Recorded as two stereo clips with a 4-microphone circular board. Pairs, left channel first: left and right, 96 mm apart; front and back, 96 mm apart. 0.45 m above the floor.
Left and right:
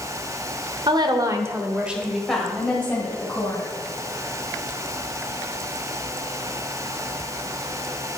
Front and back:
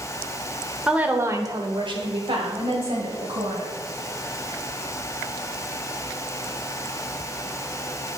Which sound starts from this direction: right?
A woman speaking, at 0.9 s.